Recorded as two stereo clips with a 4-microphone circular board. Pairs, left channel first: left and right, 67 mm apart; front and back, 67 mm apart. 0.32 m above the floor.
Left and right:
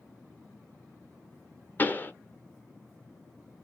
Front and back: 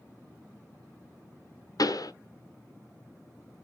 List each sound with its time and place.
1.8 s a pop: 25° left, 0.8 m